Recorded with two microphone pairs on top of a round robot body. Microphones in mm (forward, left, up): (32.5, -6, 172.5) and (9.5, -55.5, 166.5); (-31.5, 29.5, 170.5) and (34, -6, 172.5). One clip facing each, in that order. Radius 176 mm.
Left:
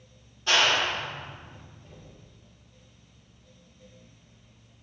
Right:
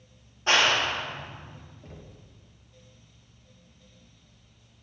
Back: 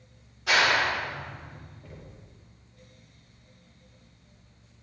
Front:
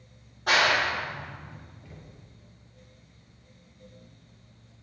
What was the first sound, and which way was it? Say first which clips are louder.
A clap: right 1 dB, even; 65° right.